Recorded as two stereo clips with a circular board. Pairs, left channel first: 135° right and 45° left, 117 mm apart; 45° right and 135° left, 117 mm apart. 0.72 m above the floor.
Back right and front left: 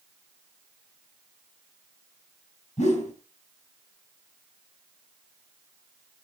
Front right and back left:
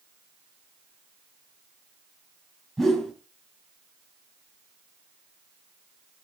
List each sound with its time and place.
2.8 s a whoosh: 135° right, 3.5 m